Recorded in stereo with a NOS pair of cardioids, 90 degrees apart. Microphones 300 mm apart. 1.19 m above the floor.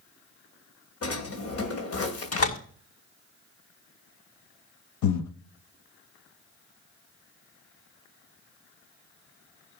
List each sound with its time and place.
1.0 s a drawer: 55° left, 2.5 m
2.3 s a door slam: 55° left, 5.5 m
5.0 s breathing: 65° left, 1.4 m